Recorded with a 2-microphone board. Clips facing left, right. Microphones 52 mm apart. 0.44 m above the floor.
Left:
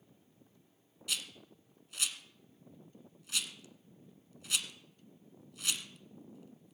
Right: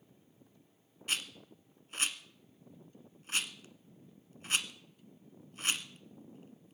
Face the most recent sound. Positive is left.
turn(degrees=-40)  # may be behind; listen again after turning